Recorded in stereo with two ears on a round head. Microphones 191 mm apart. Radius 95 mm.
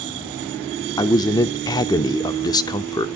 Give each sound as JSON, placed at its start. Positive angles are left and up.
{"t": 1.0, "sound": "a man speaking", "side_deg": 20, "distance_m": 0.7}